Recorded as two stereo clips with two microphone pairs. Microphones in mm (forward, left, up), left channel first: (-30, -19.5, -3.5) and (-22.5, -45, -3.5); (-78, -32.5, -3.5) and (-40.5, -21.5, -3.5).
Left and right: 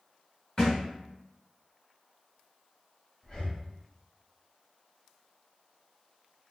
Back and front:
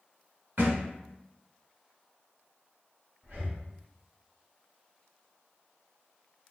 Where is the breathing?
50° left, 0.9 m.